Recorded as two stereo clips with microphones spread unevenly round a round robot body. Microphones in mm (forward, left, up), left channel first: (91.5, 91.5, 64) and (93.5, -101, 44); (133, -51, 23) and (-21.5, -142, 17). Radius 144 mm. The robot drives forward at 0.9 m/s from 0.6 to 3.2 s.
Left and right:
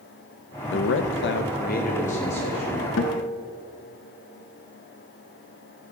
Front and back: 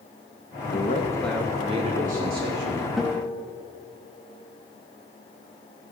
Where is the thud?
I don't hear a thud.